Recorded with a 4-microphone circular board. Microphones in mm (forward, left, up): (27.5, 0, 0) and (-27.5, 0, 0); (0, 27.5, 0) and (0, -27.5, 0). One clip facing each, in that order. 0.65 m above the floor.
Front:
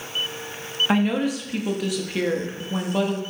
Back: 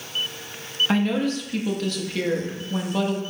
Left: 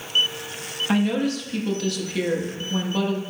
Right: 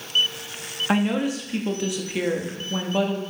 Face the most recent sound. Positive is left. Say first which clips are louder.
# front 1 dB, even
turn(degrees=-55)